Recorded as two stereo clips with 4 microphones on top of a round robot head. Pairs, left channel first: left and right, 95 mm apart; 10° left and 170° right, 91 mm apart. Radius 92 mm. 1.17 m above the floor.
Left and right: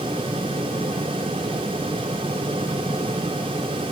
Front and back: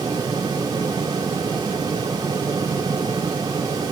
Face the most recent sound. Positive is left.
No sound to turn to.